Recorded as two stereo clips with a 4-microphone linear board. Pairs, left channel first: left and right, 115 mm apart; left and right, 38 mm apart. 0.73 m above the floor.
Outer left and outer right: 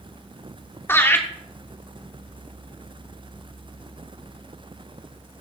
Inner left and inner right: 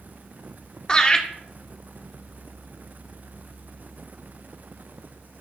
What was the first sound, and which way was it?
Laughter, 20° left (ahead or behind).